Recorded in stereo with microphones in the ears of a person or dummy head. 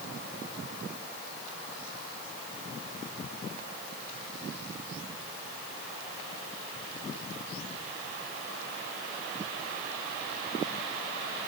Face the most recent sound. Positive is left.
No sound to turn to.